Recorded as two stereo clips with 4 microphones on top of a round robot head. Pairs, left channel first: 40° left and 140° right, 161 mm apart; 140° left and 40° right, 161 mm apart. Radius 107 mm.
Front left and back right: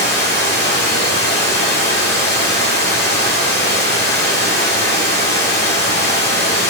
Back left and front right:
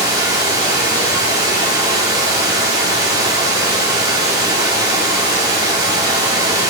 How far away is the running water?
About 1.8 m.